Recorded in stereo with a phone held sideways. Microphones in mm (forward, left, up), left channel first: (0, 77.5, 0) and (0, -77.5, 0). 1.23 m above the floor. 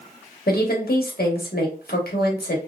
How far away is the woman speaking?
About 1.2 m.